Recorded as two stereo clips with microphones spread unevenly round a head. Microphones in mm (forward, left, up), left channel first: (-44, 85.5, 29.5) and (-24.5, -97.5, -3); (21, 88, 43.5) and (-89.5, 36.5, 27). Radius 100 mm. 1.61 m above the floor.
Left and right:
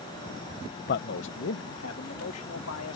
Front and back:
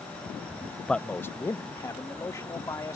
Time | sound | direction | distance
0.9 | a man speaking | 105° left | ?